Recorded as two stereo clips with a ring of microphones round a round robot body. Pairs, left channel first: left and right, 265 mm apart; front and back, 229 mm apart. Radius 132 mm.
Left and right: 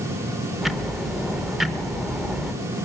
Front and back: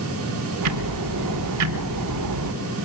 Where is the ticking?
Straight behind, 1.0 m.